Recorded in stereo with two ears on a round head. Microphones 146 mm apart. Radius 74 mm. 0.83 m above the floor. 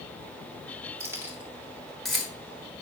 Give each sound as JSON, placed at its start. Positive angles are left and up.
{"t": 1.0, "sound": "keys jangling", "side_deg": -15, "distance_m": 2.0}